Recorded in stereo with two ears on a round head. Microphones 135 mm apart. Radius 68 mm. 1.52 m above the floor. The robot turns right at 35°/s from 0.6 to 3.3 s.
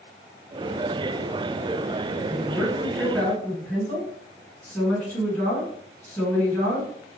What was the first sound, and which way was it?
A woman speaking, 25° right.